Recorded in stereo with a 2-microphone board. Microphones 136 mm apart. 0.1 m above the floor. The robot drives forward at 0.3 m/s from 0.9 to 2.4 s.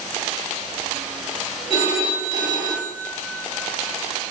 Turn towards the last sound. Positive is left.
turn(degrees=-30)  # may be behind; listen again after turning